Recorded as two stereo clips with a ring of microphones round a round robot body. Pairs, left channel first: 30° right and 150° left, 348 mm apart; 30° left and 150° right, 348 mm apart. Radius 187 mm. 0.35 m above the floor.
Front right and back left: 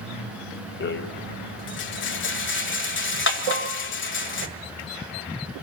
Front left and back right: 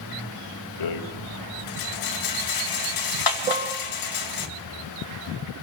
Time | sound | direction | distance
0.8 | a rattle | 25° left | 2 m
3.5 | dishes clattering | 130° left | 4.5 m